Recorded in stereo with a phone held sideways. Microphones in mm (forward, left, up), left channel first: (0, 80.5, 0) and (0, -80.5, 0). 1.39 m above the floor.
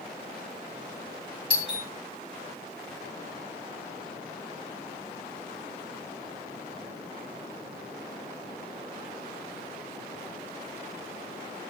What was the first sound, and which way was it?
A doorbell, 30° left (ahead or behind).